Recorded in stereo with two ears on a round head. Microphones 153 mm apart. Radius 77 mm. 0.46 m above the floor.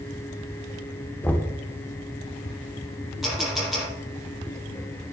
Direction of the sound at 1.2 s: 10° left (ahead or behind).